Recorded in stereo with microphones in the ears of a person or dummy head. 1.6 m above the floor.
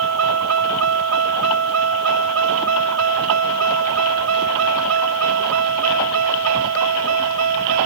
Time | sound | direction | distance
0.0 | a vehicle | 85° right | ?